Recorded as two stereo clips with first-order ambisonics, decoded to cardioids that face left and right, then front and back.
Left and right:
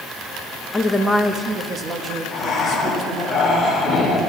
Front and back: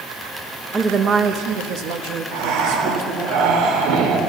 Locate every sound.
0.7 s a woman speaking: 135° left, 0.8 m; by 3.3 s 145° right, 2.5 m
2.3 s breathing: 170° left, 2.5 m